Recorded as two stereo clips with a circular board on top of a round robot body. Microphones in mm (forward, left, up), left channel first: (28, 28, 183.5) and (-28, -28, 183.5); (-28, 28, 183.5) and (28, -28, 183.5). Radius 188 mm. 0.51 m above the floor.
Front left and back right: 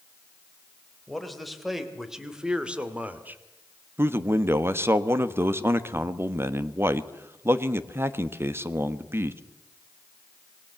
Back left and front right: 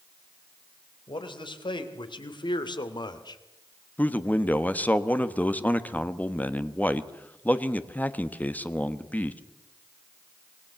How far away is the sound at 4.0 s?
About 1.5 m.